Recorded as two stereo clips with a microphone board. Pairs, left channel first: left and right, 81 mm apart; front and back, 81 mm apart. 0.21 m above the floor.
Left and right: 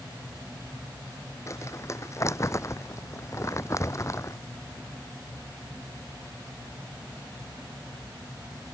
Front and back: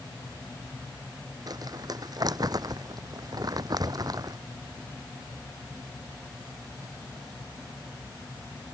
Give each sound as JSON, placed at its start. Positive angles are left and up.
{"t": 1.5, "sound": "crumpling", "azimuth_deg": 145}